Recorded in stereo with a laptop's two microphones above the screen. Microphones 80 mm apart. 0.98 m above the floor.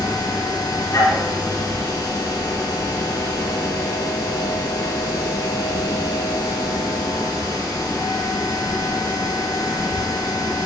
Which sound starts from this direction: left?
A machine running, at 0.0 s.